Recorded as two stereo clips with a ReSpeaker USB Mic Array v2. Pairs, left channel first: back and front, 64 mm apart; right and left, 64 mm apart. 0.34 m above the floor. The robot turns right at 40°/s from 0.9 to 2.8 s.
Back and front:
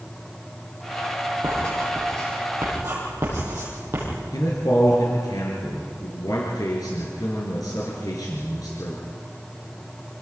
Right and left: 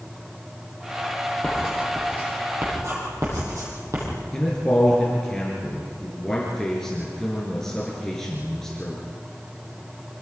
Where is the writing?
5° right, 10 m; by 4.0 s 50° left, 10 m.